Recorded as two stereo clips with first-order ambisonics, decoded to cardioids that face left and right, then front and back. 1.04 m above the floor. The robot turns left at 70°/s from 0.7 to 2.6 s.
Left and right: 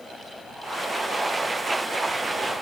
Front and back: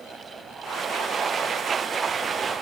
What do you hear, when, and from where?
Only background noise.